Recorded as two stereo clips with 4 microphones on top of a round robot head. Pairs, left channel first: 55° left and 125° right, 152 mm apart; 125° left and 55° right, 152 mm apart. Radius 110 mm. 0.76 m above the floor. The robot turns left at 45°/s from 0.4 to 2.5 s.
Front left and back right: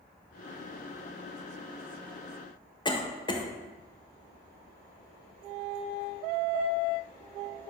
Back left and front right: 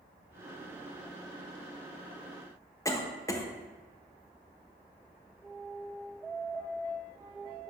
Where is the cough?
75° left, 1.2 m.